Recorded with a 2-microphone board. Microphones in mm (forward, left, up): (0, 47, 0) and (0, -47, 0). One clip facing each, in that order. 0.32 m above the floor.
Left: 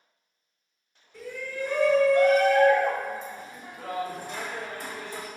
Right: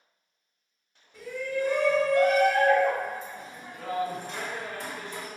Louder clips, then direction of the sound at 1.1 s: Right 4 dB; 15° right (ahead or behind).